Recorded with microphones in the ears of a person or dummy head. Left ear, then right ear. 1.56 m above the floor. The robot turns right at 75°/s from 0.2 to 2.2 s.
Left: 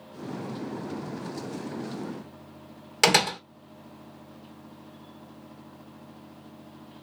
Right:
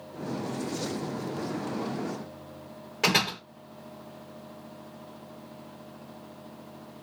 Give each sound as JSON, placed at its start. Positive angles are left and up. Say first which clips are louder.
{"t": 3.0, "sound": "a door slam", "louder": "left 4 dB", "side_deg": 50, "distance_m": 0.9}